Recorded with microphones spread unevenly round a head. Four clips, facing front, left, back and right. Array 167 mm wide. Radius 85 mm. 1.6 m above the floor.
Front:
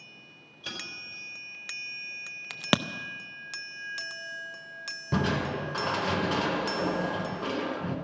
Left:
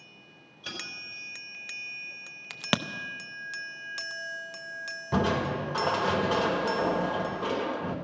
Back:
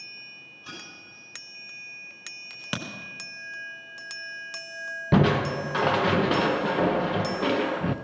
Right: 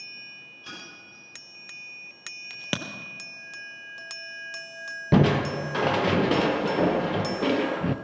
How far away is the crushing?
About 1.0 m.